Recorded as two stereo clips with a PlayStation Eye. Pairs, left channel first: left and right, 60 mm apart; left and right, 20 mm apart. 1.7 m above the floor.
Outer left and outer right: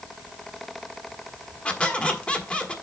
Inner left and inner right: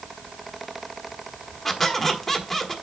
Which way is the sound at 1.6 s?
20° left (ahead or behind).